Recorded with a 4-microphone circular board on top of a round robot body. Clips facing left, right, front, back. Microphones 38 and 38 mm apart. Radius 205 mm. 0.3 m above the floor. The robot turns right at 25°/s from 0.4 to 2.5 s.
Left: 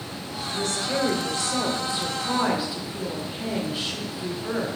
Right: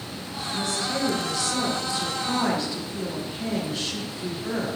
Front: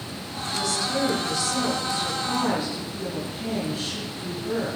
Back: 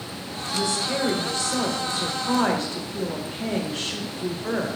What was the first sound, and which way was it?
A woman speaking, 115° left.